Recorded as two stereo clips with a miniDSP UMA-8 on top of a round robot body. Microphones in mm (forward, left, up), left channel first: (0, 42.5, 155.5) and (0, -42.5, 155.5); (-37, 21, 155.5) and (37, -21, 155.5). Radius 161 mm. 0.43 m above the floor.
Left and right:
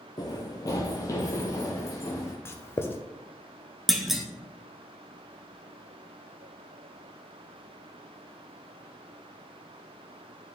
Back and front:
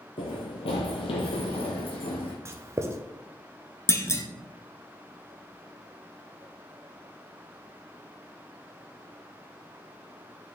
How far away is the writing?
About 0.6 m.